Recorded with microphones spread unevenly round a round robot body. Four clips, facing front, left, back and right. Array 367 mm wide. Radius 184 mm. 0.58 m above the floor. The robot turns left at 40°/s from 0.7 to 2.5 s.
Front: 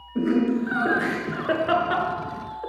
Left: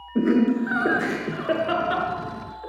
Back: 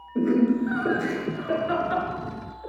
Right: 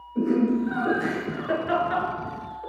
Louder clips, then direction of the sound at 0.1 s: Left 2 dB, back 1 dB; 75° left.